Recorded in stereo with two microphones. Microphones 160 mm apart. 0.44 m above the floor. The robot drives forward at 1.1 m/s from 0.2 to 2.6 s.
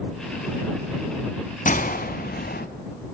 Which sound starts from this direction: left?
A gunshot, at 1.6 s.